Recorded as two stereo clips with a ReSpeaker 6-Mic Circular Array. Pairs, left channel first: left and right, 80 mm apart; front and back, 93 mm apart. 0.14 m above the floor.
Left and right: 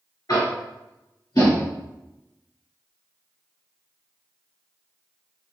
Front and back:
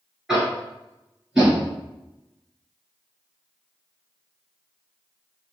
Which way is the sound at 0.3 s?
100° left.